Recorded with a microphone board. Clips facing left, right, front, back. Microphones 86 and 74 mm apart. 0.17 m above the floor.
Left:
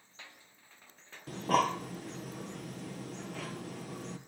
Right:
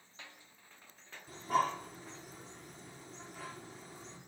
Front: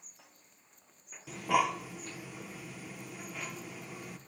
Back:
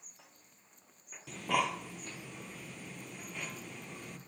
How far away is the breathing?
About 1.0 m.